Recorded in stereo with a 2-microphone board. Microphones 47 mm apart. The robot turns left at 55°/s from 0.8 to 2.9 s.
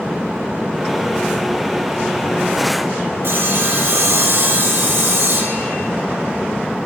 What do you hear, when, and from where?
3.2 s sawing: 60° right (ahead or behind), 1.5 m